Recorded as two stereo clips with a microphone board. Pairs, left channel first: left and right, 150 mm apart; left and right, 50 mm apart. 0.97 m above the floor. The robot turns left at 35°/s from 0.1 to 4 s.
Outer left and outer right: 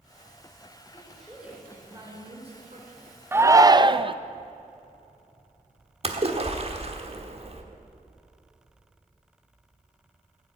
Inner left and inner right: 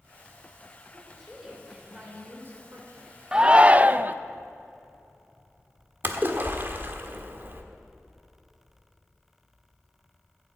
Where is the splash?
40° right (ahead or behind), 1.4 m.